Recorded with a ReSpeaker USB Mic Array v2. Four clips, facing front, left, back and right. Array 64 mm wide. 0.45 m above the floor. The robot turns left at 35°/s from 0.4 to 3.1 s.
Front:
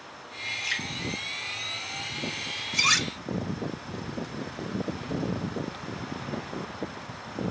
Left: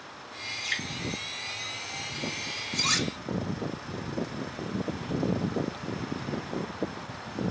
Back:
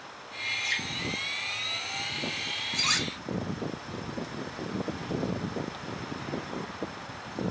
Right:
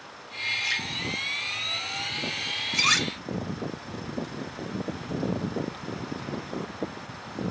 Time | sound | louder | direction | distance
0.6 | dripping | even, front 1 dB | 40° right | 3.5 m
2.7 | cutlery clinking | right 5 dB, front 6 dB | 55° right | 0.8 m